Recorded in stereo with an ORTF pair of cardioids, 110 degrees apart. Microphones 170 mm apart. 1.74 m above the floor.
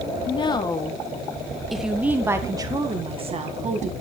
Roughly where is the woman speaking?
Ahead left.